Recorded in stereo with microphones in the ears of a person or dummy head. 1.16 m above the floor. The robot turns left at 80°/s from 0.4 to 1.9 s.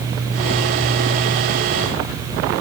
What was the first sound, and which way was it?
Only background noise.